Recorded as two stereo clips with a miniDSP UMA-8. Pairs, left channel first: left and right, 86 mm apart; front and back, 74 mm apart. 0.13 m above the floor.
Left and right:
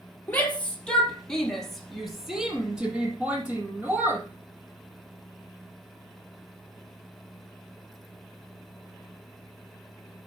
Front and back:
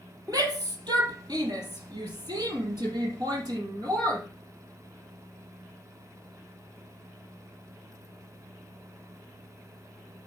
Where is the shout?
160° left, 3 m; by 4.3 s 155° right, 3.5 m.